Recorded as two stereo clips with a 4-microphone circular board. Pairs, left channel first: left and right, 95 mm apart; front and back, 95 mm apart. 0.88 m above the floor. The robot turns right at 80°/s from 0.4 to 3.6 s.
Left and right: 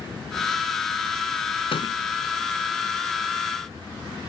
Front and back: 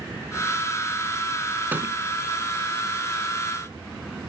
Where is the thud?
105° left; by 2.0 s 130° left.